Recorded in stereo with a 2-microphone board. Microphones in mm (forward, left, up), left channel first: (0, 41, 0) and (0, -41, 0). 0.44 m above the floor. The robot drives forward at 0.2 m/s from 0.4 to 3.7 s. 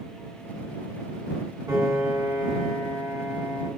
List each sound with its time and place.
1.7 s a piano: 50° right (ahead or behind), 1.9 m; by 3.7 s 45° right (ahead or behind), 2 m